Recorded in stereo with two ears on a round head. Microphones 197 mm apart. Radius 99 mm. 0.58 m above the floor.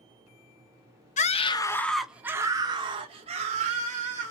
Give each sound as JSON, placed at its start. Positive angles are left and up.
{"t": 1.2, "sound": "a scream", "side_deg": 35, "distance_m": 0.7}